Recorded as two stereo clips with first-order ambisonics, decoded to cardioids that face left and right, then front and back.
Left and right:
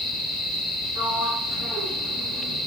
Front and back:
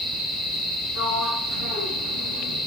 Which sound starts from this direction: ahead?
A sliding door, at 0.9 s.